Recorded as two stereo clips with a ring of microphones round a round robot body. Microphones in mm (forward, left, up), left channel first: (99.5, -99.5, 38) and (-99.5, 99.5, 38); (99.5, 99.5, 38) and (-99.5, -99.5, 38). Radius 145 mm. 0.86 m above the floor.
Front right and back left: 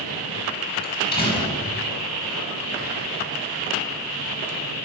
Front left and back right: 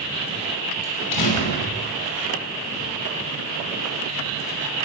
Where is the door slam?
25° left, 5.5 m.